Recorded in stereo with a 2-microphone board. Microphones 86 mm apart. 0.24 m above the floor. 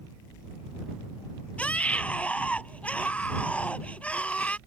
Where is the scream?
15° left (ahead or behind).